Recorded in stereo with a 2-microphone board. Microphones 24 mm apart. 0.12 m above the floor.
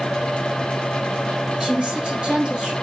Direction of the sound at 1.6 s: 40° right (ahead or behind).